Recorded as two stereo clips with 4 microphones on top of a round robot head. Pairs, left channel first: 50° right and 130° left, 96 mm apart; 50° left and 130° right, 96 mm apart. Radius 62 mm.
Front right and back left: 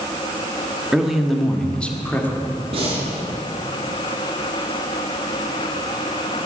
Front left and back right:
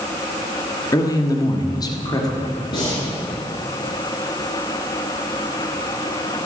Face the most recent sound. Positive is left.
turn(degrees=95)